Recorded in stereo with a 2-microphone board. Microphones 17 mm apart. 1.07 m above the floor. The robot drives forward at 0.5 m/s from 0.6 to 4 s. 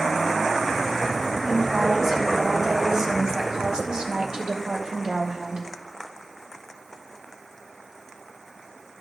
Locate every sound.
1.5 s a woman speaking: 25° right (ahead or behind), 2 m; by 5.7 s 50° right (ahead or behind), 1.3 m